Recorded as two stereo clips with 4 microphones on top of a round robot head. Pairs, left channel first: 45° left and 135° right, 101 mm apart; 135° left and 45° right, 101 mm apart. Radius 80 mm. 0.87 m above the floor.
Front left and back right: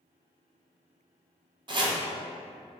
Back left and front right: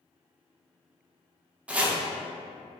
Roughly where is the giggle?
I don't hear a giggle.